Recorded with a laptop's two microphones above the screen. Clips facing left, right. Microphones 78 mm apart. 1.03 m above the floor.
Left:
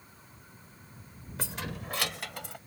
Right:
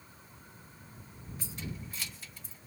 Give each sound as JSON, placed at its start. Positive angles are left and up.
{"t": 1.4, "sound": "keys jangling", "side_deg": 85}